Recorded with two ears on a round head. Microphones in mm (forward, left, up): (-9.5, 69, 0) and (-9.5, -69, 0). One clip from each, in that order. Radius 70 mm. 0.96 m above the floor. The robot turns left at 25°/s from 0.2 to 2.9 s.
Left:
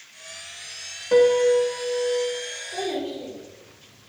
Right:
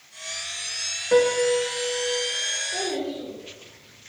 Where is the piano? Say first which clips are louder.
Left 3 dB; straight ahead, 0.5 m; by 2.3 s 30° right, 0.5 m.